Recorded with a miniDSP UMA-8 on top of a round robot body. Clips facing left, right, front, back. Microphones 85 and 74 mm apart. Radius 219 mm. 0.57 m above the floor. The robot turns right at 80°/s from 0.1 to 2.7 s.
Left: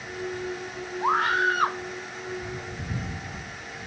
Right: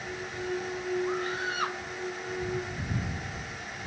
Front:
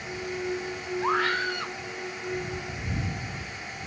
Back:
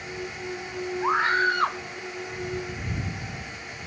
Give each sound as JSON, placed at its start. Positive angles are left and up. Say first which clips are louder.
{"t": 1.0, "sound": "a scream", "louder": "left 8 dB, back 4 dB", "azimuth_deg": 90}